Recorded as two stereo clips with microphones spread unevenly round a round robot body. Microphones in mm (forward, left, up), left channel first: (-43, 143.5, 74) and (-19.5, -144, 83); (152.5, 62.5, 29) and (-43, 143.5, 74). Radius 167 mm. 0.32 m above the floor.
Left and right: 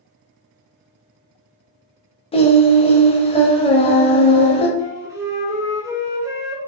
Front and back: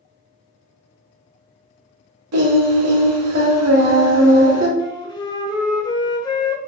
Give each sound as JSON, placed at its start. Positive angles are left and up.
{"t": 2.3, "sound": "singing", "azimuth_deg": 165, "distance_m": 0.7}
{"t": 4.8, "sound": "a flute", "azimuth_deg": -10, "distance_m": 0.8}